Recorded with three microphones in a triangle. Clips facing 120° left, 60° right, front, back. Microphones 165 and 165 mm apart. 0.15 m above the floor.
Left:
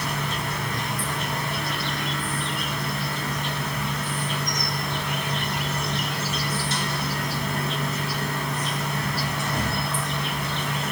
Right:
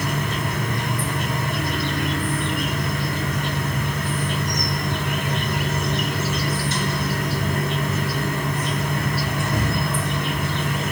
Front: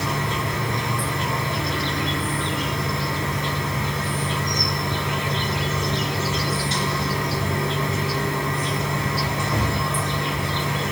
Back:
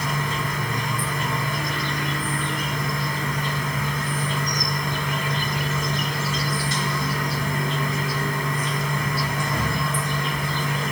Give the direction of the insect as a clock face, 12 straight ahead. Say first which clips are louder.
Right 4 dB, front 1 dB; 2 o'clock.